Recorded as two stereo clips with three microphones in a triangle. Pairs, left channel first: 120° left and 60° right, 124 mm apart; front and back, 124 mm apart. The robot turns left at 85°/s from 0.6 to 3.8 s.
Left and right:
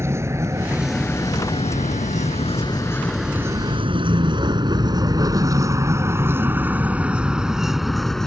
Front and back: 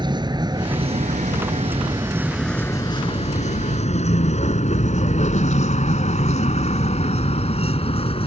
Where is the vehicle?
130° right; by 8.3 s 35° left.